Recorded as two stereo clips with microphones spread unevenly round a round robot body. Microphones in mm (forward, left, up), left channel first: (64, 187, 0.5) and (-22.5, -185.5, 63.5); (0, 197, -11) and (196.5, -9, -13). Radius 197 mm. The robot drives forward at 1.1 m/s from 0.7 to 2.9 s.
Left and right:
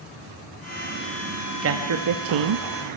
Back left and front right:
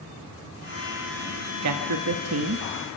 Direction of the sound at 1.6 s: 45° right.